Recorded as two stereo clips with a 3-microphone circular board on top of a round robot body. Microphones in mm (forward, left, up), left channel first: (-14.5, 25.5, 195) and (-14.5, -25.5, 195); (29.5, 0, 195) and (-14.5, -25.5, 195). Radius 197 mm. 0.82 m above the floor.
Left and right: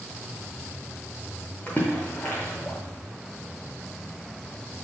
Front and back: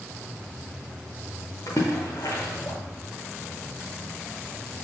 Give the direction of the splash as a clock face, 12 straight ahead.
11 o'clock.